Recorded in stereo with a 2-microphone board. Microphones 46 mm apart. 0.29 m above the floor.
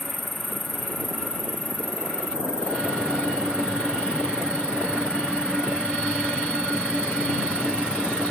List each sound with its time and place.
0.0 s an insect: 20° right (ahead or behind)